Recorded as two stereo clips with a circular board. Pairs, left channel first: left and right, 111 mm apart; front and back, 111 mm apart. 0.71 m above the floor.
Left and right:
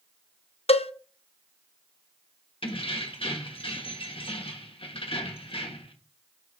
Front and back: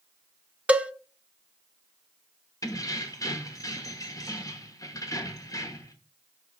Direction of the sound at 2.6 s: 60° left.